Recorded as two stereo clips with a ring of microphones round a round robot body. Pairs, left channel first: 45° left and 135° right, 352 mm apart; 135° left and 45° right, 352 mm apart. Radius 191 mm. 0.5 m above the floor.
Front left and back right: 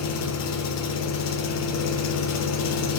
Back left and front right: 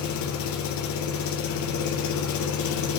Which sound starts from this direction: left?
An engine running, at 0.0 s.